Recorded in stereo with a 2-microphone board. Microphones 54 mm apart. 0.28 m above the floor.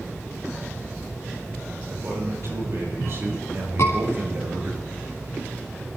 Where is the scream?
60° left (ahead or behind), 3.5 m.